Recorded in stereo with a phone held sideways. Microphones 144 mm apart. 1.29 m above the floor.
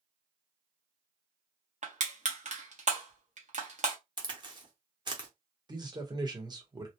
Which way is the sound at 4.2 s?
30° right (ahead or behind).